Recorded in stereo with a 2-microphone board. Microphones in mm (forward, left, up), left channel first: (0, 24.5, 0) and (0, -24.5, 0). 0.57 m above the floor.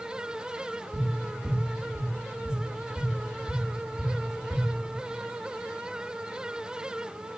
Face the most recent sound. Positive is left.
turn(degrees=20)  # may be behind; listen again after turning